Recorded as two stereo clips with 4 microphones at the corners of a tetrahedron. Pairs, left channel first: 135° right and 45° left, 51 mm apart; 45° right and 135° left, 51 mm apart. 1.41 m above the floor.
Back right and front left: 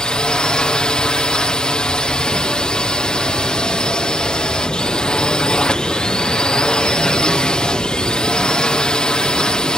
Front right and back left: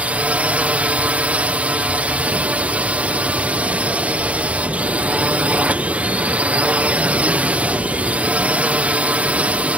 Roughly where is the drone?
Behind.